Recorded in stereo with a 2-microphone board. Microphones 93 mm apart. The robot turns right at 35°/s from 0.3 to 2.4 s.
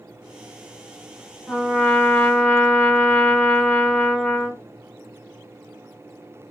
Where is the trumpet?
5° left (ahead or behind), 1.4 m; by 4.6 s 15° left (ahead or behind), 1.4 m.